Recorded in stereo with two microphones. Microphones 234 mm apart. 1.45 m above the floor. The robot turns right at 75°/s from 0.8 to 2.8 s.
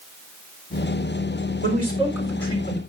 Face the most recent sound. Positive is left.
turn(degrees=40)